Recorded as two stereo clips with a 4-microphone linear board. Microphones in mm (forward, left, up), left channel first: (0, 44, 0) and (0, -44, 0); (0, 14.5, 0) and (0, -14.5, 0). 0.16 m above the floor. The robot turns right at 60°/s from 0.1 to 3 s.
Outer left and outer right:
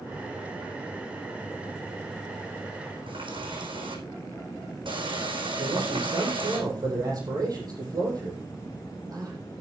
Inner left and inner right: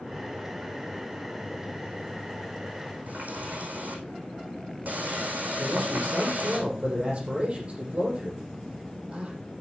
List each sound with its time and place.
3.1 s a running tap: 75° right (ahead or behind), 5 m
5.6 s a man speaking: 45° right (ahead or behind), 6 m